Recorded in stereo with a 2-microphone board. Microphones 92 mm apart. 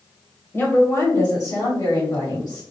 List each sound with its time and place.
0.5 s a woman speaking: 30° left (ahead or behind), 1.3 m; by 2.6 s 55° left (ahead or behind), 2.5 m